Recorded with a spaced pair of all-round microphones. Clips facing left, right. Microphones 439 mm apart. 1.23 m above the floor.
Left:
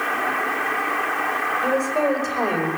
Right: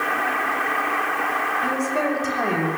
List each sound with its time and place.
1.6 s a woman speaking: 35° right (ahead or behind), 5.5 m